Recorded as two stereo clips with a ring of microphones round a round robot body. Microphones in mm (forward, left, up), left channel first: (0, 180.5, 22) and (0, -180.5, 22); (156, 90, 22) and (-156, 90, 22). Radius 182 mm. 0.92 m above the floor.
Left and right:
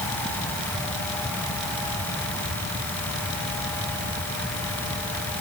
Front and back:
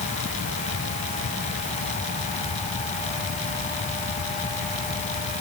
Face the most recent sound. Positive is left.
No sound to turn to.